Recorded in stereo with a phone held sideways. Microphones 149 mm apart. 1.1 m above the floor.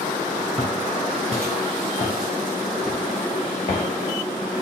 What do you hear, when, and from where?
0.6 s footsteps: centre (ahead or behind), 1.9 m; by 3.9 s 45° left (ahead or behind), 1.5 m